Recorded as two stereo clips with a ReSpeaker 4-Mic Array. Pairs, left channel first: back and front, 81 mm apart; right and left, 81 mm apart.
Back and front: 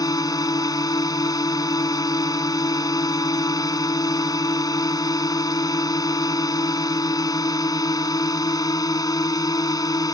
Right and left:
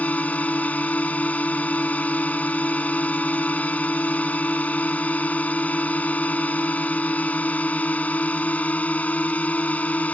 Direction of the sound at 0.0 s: 160° right.